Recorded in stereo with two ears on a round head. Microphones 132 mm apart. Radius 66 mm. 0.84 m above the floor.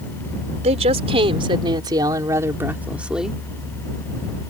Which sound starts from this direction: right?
A woman speaking, at 0.6 s.